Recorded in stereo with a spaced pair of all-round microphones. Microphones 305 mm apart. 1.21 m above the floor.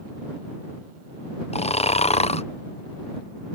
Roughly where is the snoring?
Left.